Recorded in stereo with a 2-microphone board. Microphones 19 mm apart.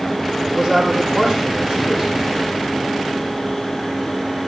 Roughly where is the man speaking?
Centre.